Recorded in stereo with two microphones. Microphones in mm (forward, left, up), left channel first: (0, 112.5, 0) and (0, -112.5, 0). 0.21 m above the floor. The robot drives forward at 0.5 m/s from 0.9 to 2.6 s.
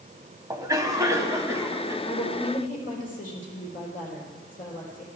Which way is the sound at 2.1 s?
40° left (ahead or behind).